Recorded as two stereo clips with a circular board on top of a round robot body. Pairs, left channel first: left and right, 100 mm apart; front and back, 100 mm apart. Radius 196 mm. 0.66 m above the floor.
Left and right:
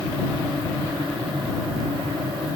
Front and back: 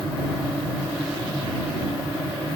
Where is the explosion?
I don't hear an explosion.